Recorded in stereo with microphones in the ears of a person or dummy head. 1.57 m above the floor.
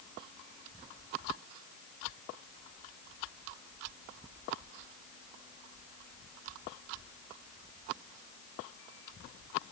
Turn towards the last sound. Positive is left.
No sound to turn to.